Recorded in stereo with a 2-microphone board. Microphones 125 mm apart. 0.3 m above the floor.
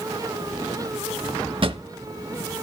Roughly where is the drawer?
Right.